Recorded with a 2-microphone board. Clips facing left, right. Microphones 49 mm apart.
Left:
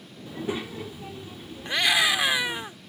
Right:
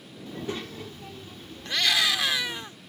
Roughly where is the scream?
Centre.